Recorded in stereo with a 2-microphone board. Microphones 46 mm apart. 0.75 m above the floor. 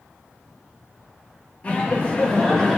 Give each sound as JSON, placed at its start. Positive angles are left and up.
{"t": 1.6, "sound": "laughter", "side_deg": 25, "distance_m": 0.8}